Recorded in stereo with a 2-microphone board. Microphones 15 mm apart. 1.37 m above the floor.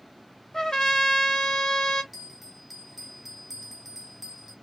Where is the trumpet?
40° left (ahead or behind), 1.3 m.